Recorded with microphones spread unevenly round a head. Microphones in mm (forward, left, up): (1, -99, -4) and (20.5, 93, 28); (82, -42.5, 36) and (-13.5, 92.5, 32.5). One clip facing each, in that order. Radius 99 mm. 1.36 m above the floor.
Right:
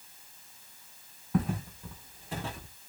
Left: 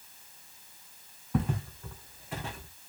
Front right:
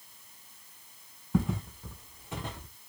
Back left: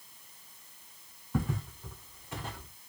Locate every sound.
1.3 s footsteps: 5° left, 1.6 m; by 2.7 s 105° right, 1.5 m